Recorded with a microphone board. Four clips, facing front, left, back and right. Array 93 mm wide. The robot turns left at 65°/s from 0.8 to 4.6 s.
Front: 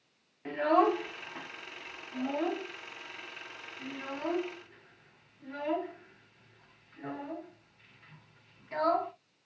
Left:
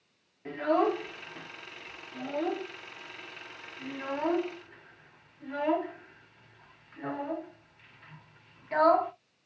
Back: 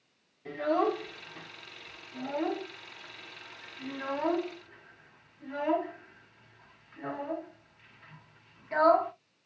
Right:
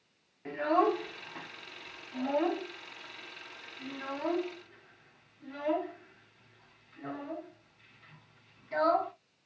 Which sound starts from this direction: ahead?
A child speaking, at 0.5 s.